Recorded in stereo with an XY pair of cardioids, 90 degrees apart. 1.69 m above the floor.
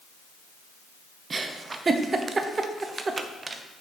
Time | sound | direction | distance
1.3 | a giggle | 40° right | 0.9 m